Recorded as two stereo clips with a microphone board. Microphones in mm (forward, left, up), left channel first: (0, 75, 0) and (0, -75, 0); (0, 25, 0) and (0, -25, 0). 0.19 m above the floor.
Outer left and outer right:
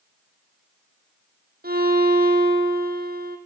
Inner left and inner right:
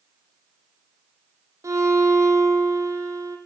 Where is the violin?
80° right, 4 m.